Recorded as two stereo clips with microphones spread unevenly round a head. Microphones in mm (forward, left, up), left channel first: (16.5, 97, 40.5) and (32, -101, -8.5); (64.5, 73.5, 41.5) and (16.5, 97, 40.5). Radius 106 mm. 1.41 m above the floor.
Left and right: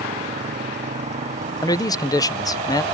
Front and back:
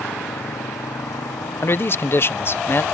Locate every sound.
0.0 s a motorcycle: 30° right
1.6 s a man speaking: 20° left